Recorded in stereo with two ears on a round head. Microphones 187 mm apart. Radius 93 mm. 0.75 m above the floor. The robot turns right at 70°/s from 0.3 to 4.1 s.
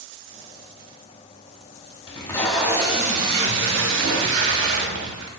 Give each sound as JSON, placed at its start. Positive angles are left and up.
{"t": 2.1, "sound": "tape being pulled", "azimuth_deg": 150, "distance_m": 1.1}